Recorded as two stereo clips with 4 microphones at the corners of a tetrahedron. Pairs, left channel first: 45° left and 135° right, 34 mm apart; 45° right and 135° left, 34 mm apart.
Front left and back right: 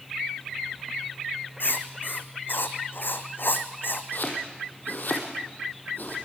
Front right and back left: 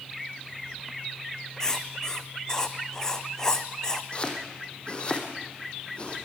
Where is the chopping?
15° left, 3 m.